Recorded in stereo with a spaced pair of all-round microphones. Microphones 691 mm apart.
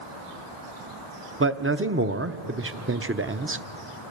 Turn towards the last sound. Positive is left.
turn(degrees=-20)  # may be behind; listen again after turning